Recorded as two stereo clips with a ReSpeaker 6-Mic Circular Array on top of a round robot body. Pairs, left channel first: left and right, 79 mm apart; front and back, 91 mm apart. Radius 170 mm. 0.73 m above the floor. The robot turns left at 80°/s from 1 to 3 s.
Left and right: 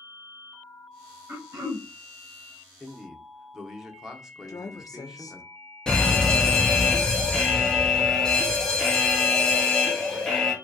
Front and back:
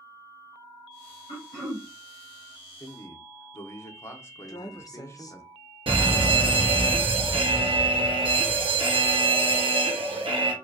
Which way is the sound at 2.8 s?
5° left.